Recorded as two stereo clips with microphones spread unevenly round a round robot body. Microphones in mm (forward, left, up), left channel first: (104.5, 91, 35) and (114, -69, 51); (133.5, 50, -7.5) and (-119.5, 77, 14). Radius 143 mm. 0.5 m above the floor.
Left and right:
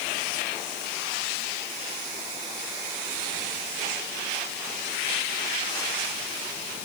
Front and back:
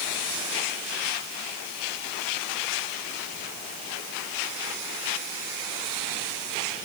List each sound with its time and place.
Only background noise.